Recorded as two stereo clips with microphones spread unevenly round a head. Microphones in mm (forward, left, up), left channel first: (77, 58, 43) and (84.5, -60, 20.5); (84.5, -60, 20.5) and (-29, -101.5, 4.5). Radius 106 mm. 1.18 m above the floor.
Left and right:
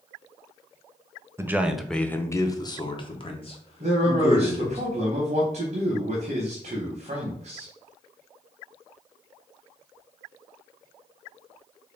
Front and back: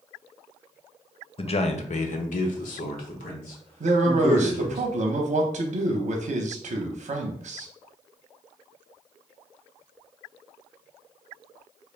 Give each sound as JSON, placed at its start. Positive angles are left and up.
{"t": 1.4, "sound": "a man speaking", "azimuth_deg": -20, "distance_m": 0.6}
{"t": 3.8, "sound": "a man speaking", "azimuth_deg": -140, "distance_m": 0.7}